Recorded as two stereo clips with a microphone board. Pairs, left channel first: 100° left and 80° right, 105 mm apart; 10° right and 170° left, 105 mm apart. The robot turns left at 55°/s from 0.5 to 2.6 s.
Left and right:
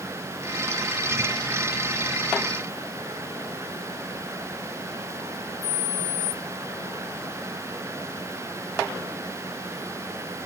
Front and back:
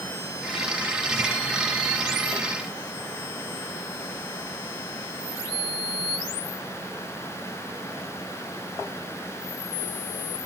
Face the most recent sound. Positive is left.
No sound to turn to.